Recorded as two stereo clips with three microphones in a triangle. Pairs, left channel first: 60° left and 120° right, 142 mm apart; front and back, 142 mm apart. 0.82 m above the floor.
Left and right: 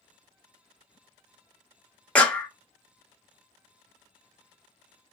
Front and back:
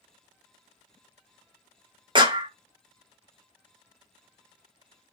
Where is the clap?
140° left, 0.7 m.